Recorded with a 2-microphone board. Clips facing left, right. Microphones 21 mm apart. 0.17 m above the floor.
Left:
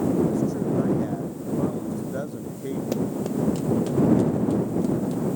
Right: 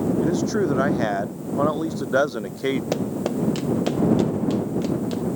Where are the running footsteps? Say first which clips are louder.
Right 1 dB; 25° right (ahead or behind); by 5.2 s 45° right (ahead or behind).